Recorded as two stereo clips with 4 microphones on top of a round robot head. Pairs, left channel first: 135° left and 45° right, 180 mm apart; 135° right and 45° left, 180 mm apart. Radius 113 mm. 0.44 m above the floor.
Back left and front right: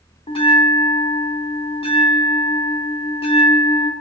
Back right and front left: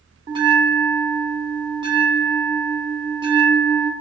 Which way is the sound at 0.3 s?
95° left.